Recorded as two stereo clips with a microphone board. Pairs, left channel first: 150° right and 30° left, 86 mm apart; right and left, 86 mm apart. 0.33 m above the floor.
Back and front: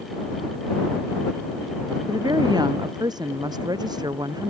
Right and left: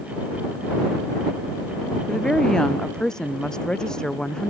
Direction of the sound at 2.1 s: 10° right.